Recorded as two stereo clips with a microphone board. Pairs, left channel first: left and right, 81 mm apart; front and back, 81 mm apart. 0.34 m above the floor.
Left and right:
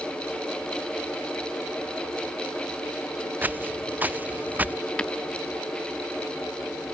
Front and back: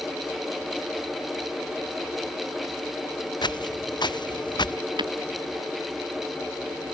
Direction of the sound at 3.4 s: 20° right.